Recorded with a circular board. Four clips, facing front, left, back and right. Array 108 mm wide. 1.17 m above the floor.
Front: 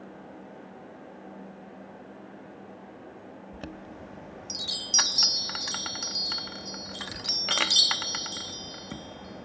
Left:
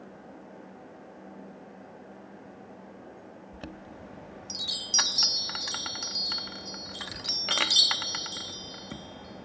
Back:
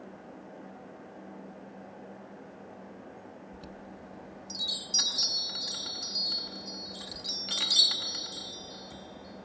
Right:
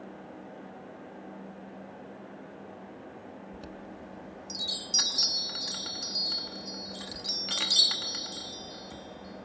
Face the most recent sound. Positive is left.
turn(degrees=35)